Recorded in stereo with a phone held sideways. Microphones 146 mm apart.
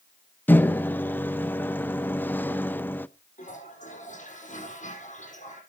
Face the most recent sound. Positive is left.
turn(degrees=55)  # may be behind; listen again after turning